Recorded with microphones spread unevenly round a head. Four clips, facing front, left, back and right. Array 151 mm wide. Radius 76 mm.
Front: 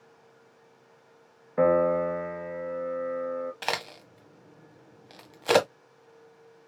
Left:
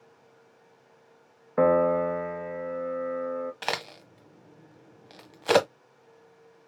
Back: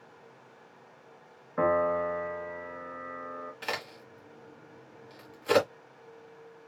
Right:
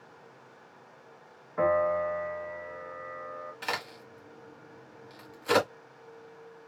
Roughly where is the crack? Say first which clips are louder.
Left 3 dB, front 4 dB; ahead left.